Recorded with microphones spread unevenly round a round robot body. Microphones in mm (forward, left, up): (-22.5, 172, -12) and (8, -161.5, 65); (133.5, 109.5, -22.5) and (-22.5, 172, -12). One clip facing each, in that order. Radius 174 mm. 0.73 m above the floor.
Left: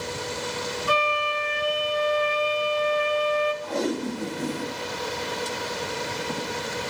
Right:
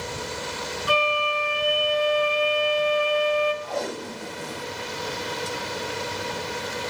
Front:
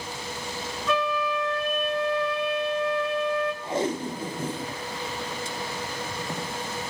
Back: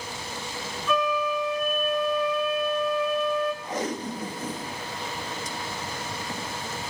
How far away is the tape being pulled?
About 1.8 m.